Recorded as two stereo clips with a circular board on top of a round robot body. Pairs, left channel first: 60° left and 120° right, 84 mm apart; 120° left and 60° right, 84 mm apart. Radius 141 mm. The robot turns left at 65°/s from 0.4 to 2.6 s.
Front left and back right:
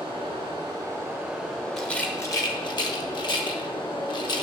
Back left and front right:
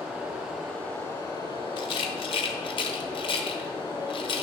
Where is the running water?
140° right, 4 m; by 4.4 s 75° left, 4 m.